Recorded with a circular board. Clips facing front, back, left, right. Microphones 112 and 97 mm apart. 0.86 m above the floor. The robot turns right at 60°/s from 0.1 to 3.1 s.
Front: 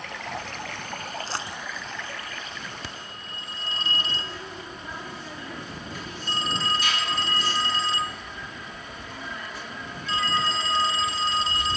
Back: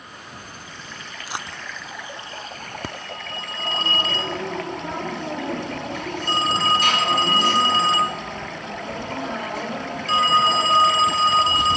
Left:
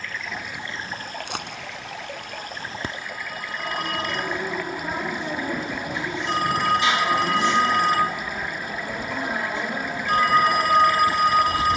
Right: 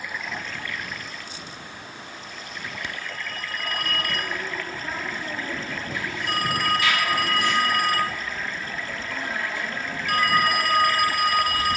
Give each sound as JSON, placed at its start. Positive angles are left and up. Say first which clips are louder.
{"t": 0.0, "sound": "running water", "louder": "front 6 dB, even", "azimuth_deg": -15}
{"t": 1.3, "sound": "a dropped coin", "louder": "even, left 7 dB", "azimuth_deg": 100}
{"t": 2.8, "sound": "a phone ringing", "louder": "back 7 dB, left 2 dB", "azimuth_deg": 135}